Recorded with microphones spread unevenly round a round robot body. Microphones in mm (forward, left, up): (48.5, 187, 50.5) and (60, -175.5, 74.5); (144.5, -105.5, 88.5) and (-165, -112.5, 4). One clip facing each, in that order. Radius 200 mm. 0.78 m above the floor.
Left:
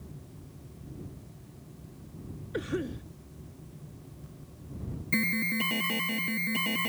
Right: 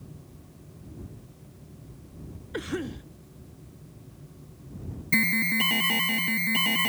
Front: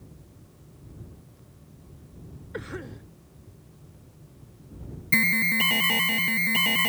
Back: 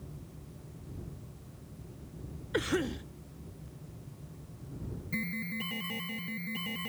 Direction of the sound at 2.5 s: 165° right.